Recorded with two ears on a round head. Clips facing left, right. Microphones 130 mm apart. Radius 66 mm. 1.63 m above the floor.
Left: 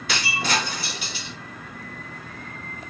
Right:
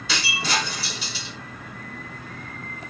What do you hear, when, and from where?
0.1 s breaking glass: 45° left (ahead or behind), 2 m